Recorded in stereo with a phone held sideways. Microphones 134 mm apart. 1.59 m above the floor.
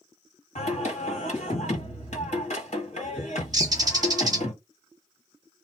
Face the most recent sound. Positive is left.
turn(degrees=-30)  # may be behind; listen again after turning